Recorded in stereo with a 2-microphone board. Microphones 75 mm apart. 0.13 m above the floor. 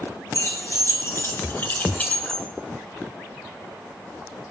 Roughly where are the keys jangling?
Left.